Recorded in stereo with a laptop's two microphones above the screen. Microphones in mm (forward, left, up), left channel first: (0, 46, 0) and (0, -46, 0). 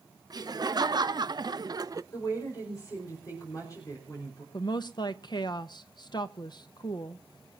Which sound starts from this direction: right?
Laughter, at 0.3 s.